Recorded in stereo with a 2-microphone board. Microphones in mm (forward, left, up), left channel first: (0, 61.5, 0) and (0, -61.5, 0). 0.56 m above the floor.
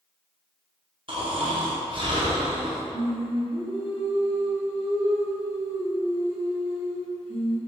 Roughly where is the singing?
Left.